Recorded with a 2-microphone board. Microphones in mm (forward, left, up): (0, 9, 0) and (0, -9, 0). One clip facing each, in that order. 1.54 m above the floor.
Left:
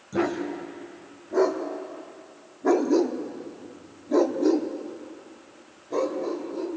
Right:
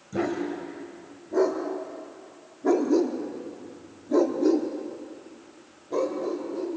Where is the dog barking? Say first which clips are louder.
Left 1 dB; 10° left (ahead or behind), 3 m; by 6.7 s centre (ahead or behind), 3 m.